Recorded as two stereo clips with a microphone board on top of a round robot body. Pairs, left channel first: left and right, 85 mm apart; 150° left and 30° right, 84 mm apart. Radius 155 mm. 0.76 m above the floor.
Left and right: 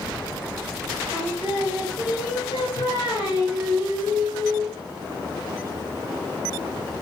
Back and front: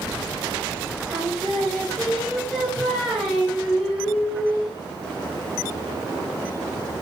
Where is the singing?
60° left, 6.5 m.